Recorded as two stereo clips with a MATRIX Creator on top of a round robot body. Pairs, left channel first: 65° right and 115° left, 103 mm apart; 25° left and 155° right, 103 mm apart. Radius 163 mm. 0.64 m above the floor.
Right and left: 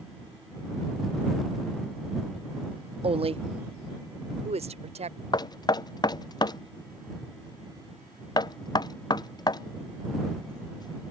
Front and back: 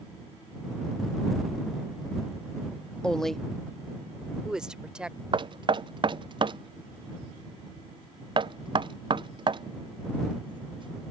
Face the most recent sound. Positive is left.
turn(degrees=-115)